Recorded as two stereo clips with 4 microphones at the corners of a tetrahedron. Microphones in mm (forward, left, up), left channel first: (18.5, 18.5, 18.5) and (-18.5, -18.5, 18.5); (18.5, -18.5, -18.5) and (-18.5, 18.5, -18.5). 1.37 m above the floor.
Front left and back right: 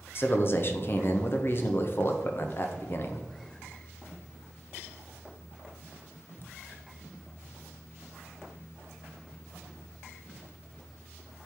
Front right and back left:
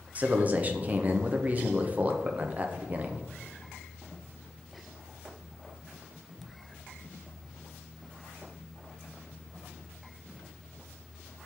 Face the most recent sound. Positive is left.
turn(degrees=80)